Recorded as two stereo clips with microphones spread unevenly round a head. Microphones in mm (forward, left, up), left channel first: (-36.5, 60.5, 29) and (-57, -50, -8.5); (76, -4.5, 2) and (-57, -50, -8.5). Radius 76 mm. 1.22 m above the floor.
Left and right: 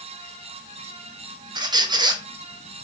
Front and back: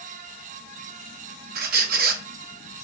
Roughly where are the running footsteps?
No running footsteps in this recording.